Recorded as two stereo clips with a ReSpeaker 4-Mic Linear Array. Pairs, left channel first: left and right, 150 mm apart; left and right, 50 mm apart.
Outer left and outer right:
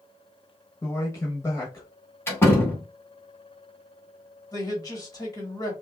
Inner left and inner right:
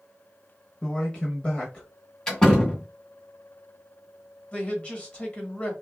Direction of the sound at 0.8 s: 20° left (ahead or behind).